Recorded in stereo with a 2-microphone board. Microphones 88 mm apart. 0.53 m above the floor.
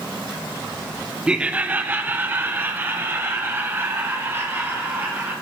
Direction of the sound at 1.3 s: 10° right (ahead or behind).